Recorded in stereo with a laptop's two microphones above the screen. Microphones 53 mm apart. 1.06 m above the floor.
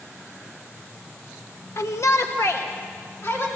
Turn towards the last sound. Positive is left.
turn(degrees=50)  # may be behind; listen again after turning